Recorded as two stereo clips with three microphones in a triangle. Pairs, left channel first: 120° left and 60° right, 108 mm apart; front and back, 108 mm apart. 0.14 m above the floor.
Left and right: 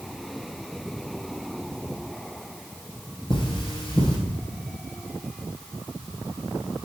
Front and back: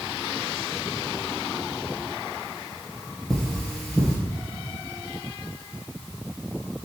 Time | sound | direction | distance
3.3 | cutlery clinking | 90° left | 1.9 m